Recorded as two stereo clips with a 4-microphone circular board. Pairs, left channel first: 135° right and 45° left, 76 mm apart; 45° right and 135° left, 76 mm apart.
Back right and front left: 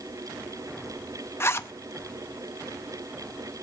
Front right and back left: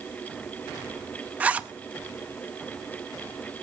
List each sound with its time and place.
1.4 s a zipper: 165° right, 0.7 m